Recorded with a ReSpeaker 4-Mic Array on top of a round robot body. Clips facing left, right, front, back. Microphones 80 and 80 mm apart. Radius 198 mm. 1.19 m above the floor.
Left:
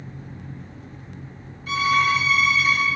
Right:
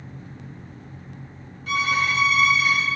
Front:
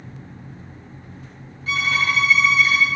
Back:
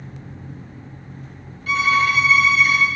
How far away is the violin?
About 1.3 m.